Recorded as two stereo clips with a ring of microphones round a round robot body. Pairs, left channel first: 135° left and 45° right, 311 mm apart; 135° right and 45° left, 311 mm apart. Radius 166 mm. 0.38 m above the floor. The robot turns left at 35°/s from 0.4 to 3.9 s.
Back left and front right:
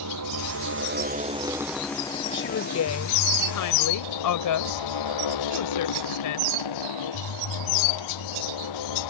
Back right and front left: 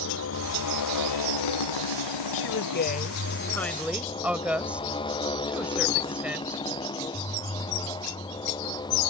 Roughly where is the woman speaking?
Behind.